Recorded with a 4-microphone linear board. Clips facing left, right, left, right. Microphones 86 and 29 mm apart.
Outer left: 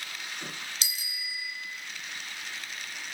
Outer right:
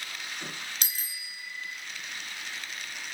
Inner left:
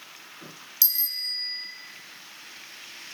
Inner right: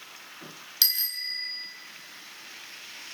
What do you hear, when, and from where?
0.8 s a bicycle bell: 50° right (ahead or behind), 2.5 m